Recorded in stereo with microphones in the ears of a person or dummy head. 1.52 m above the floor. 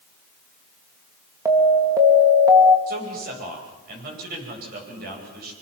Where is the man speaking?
50° right (ahead or behind), 10 m.